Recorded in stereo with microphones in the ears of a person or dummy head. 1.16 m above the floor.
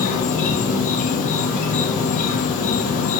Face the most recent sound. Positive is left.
turn(degrees=40)  # may be behind; listen again after turning